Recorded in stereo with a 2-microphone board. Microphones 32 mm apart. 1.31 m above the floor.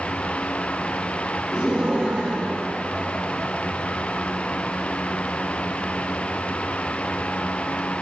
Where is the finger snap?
No finger snap in this recording.